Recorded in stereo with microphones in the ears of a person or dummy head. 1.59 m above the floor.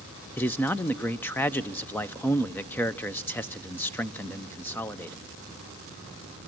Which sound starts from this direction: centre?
A man speaking, at 0.4 s.